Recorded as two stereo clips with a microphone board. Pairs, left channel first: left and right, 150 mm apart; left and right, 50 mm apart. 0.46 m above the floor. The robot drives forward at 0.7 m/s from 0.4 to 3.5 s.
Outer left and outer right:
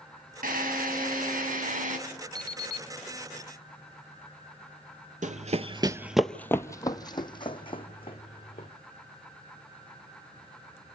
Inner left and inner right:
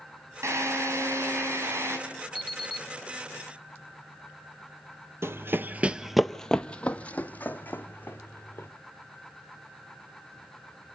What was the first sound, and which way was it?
A drill, 75° right (ahead or behind).